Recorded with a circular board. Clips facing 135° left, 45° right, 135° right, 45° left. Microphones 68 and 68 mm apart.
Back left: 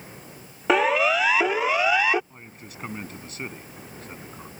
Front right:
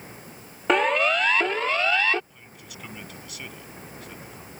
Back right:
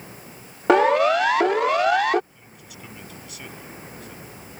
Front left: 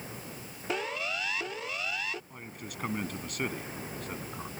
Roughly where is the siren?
Behind right.